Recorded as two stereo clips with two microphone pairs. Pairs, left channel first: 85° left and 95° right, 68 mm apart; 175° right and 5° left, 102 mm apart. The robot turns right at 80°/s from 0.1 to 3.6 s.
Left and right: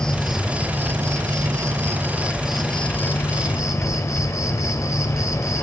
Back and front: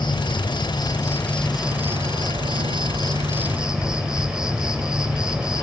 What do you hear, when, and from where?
0.0 s an insect: 160° left, 0.9 m; by 5.6 s 80° left, 0.9 m